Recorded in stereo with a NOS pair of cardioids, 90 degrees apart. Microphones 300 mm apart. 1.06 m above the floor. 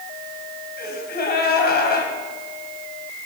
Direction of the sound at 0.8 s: 35° left.